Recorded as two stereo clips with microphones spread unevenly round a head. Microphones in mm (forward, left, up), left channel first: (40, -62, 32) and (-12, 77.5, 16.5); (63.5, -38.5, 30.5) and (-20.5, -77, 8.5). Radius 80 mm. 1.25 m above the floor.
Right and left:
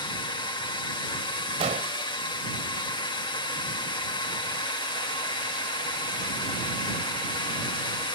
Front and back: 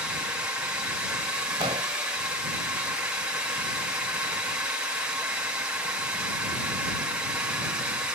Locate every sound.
0.0 s a drone: 110° right
1.6 s an explosion: 155° left